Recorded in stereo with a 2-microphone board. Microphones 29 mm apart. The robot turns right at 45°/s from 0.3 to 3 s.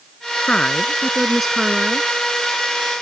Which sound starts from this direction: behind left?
A woman speaking, at 0.5 s.